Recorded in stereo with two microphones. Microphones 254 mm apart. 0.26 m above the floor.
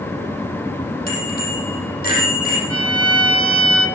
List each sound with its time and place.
1.1 s a bicycle bell: 35° left (ahead or behind), 7 m
2.7 s a violin: 60° right (ahead or behind), 1.9 m